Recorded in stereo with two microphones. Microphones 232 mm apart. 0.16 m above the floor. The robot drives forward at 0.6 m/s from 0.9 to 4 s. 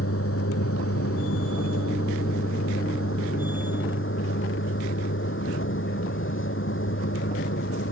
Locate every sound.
0.0 s a vehicle: 75° left (ahead or behind); by 7.9 s 60° left (ahead or behind)